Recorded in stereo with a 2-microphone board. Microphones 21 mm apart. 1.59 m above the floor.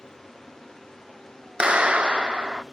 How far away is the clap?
About 0.6 m.